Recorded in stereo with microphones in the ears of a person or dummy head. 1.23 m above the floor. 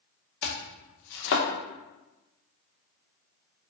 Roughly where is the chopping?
Left.